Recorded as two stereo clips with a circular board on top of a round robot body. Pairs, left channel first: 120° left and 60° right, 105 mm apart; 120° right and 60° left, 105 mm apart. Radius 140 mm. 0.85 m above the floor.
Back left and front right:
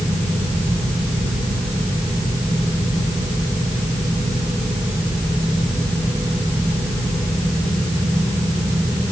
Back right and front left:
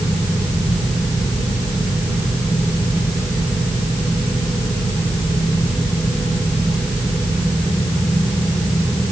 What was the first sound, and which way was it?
Only background noise.